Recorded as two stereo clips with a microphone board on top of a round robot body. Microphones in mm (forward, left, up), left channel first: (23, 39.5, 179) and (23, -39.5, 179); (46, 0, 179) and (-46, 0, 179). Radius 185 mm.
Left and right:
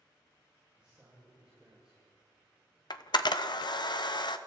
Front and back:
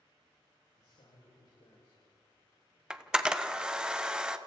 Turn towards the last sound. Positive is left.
turn(degrees=100)